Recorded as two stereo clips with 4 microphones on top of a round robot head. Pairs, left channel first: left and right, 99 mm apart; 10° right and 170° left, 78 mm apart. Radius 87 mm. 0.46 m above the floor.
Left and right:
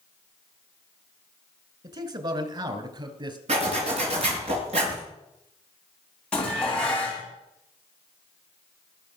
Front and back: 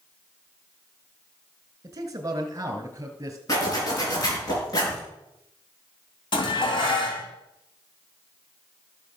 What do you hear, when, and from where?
1.8 s a man speaking: 135° right, 2.5 m; by 3.4 s 130° right, 3.5 m
3.5 s a zipper: 60° right, 5 m
6.3 s dishes clattering: 10° left, 3.5 m